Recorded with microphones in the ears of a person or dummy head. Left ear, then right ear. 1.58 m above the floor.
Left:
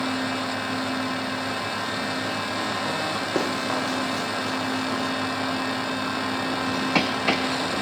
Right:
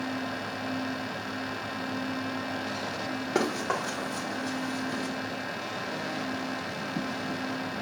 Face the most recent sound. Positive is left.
turn(degrees=15)  # may be behind; listen again after turning